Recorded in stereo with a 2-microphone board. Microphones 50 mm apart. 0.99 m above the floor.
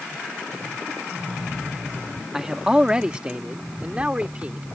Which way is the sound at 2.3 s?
10° right (ahead or behind).